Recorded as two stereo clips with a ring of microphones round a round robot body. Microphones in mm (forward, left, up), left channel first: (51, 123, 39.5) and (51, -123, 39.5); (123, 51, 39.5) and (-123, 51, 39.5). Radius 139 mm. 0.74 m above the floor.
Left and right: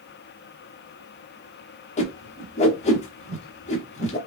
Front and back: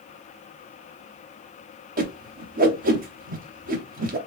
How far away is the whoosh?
About 0.7 m.